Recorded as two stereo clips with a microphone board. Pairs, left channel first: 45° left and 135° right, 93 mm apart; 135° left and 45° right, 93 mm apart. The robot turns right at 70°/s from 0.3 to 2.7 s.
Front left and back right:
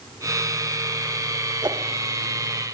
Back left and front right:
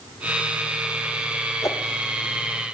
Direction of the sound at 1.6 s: 175° right.